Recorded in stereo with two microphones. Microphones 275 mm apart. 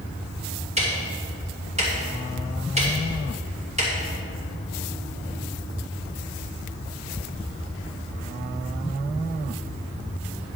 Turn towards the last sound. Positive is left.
turn(degrees=-25)  # may be behind; listen again after turning